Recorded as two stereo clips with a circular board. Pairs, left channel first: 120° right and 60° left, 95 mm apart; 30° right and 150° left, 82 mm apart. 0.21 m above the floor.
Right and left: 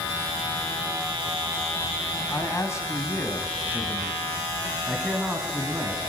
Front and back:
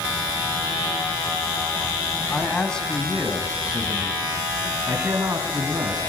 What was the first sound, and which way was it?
A man speaking, 95° right.